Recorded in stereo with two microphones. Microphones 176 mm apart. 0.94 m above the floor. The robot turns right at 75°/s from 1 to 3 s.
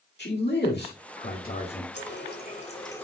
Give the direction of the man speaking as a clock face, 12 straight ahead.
9 o'clock.